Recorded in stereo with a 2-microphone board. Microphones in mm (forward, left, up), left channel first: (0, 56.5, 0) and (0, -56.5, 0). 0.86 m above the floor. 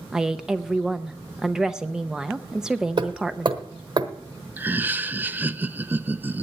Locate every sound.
0.1 s a woman speaking: 5° right (ahead or behind), 0.7 m
3.0 s hammering: 50° right (ahead or behind), 1.0 m
4.6 s laughter: 15° right (ahead or behind), 0.7 m